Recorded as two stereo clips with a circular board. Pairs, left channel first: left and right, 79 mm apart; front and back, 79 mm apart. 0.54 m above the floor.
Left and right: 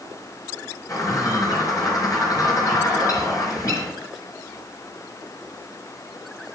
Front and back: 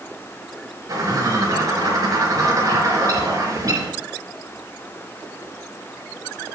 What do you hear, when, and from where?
0.9 s a bird: 135° left, 3.5 m